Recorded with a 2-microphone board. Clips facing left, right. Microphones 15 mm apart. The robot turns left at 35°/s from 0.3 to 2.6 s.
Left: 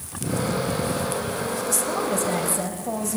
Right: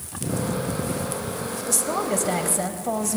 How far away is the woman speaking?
About 0.9 m.